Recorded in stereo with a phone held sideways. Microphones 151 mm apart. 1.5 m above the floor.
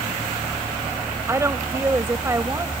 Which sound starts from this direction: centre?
A woman speaking, at 1.3 s.